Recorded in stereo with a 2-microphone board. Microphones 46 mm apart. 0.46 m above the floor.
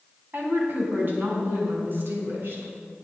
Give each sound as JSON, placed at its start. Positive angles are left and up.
{"t": 0.3, "sound": "a woman speaking", "side_deg": -40, "distance_m": 4.0}